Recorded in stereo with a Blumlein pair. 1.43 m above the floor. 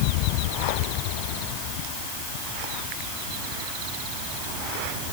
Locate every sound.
Only background noise.